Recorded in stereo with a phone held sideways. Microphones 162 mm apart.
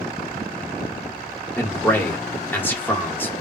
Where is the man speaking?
15° left (ahead or behind), 0.9 m.